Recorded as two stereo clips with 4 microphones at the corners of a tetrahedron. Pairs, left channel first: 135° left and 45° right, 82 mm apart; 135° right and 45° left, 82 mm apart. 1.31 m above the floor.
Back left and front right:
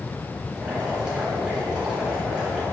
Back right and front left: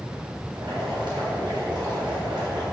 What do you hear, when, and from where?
0.5 s boiling: 35° left, 3 m